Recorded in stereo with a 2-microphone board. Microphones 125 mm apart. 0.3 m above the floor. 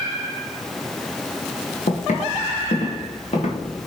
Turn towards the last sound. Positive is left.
turn(degrees=55)  # may be behind; listen again after turning